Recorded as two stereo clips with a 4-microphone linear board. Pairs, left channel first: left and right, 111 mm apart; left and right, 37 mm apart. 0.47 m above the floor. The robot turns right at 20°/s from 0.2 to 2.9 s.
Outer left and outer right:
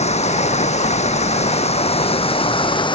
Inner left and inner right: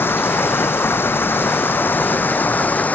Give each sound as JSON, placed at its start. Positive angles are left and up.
{"t": 0.0, "sound": "running water", "azimuth_deg": 80}